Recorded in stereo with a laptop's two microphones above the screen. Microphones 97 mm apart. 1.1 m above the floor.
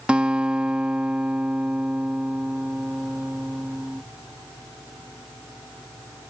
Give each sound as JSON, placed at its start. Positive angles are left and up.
{"t": 0.1, "sound": "a guitar", "side_deg": -10}